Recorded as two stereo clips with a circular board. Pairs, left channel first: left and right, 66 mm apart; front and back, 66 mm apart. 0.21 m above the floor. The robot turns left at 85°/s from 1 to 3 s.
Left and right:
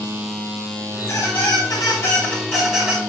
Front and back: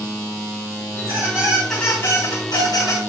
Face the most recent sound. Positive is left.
turn(degrees=-30)